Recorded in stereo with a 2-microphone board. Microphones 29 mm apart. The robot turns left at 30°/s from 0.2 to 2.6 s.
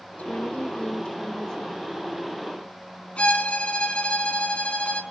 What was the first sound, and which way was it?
A woman speaking, 65° left.